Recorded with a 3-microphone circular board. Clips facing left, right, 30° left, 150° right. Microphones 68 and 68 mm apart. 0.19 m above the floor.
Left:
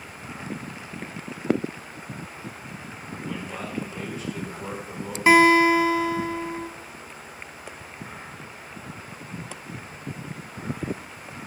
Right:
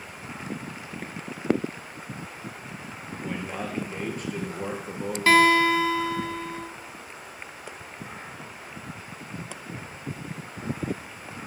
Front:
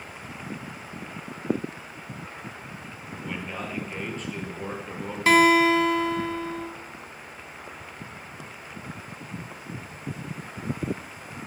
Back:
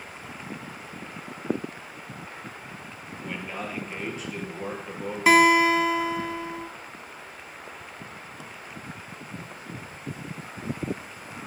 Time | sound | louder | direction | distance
3.2 | a man speaking | right 2 dB, even | 65° right | 3 m
5.3 | a guitar | left 3 dB, even | 140° left | 1.0 m